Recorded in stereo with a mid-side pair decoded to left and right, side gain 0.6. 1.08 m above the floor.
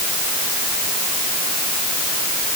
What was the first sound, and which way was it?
Only background noise.